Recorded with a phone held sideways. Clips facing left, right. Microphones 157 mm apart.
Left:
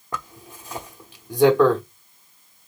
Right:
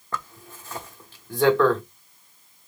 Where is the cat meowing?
I don't hear a cat meowing.